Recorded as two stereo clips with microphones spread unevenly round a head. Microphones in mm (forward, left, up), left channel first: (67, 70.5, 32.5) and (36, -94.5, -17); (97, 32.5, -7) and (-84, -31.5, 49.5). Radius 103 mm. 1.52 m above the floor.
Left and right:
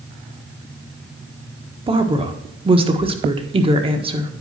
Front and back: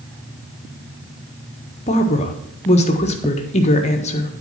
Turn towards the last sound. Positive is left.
turn(degrees=-40)